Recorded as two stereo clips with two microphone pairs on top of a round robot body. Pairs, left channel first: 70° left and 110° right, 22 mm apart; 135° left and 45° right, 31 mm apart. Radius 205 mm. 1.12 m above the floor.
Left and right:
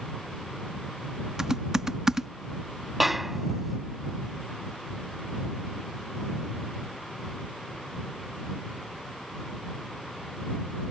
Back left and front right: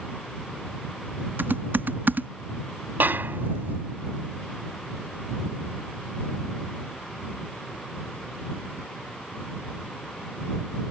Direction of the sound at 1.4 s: 45° right.